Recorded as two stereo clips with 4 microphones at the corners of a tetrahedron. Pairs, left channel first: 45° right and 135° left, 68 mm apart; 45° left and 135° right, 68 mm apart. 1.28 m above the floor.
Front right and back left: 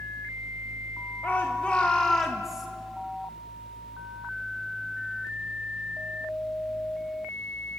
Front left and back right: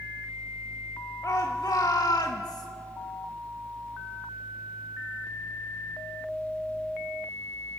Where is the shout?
15° left, 1.8 m; by 2.7 s 50° left, 1.8 m.